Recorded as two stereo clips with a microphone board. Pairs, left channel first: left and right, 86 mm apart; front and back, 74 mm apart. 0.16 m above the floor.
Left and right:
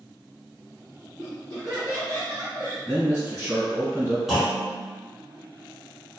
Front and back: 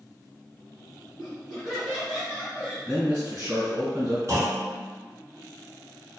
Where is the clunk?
175° right, 0.8 m.